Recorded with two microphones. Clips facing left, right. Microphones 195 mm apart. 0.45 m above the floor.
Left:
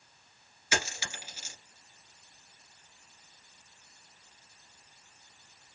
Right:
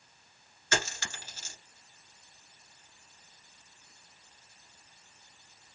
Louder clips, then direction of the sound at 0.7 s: Right 1 dB; 10° left (ahead or behind).